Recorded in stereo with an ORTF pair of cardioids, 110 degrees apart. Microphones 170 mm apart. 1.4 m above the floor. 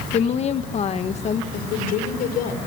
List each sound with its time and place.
0.1 s a woman speaking: 45° left, 1.6 m
1.5 s a woman speaking: 70° left, 5.5 m